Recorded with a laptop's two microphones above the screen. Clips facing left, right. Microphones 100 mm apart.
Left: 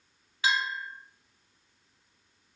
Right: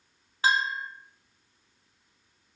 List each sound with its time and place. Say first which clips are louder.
0.4 s a bell: right 3 dB; 40° right (ahead or behind), 1.9 m